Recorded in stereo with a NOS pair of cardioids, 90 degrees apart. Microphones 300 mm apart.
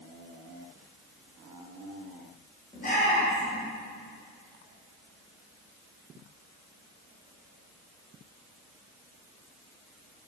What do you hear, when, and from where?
2.7 s a shout: 30° left, 5 m